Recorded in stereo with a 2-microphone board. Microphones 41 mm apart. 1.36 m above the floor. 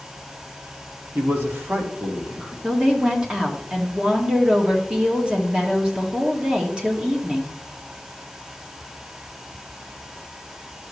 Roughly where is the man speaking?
Right.